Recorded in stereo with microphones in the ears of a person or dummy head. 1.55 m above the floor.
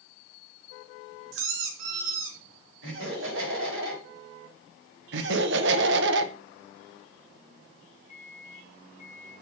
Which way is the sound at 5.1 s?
75° right (ahead or behind).